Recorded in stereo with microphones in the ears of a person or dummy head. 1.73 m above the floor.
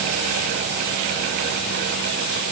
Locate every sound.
Only background noise.